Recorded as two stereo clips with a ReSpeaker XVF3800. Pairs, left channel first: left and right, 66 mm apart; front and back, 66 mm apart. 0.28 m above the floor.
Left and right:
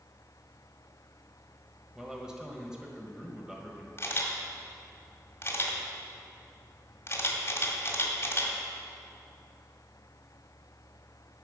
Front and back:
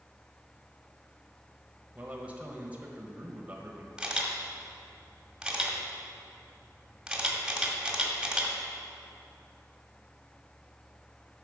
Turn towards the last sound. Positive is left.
turn(degrees=105)